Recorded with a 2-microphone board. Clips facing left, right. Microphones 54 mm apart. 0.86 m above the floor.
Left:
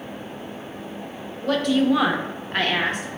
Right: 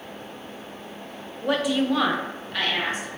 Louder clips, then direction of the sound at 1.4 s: Left 3 dB; 15° right (ahead or behind).